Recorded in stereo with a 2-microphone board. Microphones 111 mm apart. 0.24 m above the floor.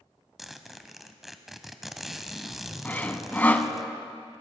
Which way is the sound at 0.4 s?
Centre (ahead or behind).